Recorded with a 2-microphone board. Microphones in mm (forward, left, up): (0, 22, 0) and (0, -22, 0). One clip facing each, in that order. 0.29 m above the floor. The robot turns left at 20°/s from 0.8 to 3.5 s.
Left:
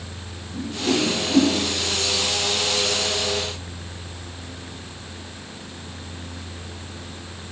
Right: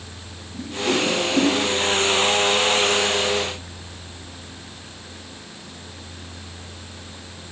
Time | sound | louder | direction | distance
0.5 | a whoosh | even | 30° left (ahead or behind) | 5 m